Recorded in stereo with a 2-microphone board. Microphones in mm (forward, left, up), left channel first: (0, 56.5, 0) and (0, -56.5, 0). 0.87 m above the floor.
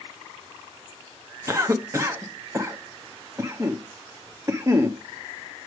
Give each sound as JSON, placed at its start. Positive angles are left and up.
{"t": 1.5, "sound": "a cough", "side_deg": -25, "distance_m": 0.8}